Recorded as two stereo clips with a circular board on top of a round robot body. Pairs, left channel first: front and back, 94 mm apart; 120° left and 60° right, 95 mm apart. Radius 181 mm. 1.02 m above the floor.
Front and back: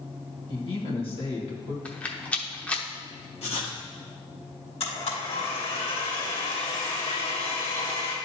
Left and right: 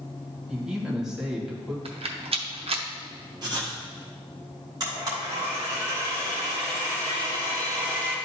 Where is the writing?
10° right, 1.2 m.